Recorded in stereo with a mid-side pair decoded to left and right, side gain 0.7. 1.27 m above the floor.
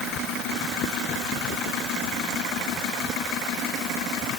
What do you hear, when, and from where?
Only background noise.